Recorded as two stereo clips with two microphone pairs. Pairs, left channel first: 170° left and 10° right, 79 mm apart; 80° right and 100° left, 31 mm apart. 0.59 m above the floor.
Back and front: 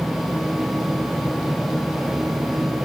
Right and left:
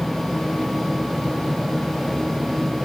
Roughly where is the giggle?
No giggle in this recording.